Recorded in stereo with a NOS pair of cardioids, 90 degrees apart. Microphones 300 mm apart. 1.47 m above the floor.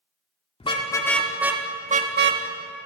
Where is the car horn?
20° left, 2 m; by 2.4 s 50° right, 1.6 m.